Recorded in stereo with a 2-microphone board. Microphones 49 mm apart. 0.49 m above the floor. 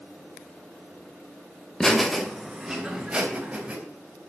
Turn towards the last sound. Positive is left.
turn(degrees=-20)  # may be behind; listen again after turning